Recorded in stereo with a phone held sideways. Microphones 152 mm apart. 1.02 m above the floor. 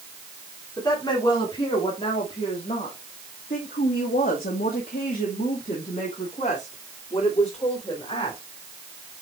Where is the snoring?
I don't hear snoring.